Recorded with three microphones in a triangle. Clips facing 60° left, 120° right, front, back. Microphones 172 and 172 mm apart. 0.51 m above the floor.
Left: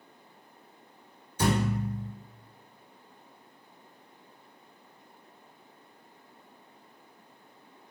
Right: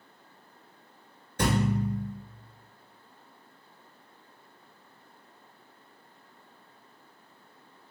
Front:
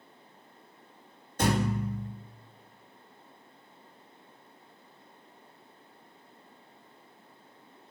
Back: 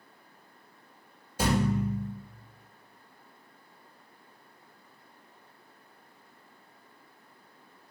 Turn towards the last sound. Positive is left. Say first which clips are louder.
# right 1 dB, back 1 dB
turn(degrees=-100)